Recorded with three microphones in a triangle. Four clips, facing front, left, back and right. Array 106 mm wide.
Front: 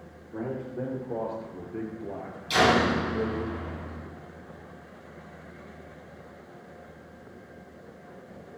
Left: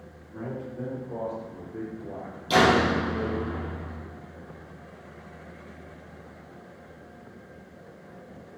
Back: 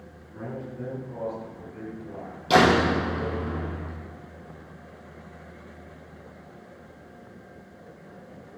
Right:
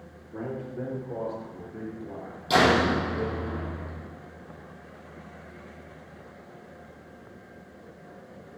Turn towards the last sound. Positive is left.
turn(degrees=-170)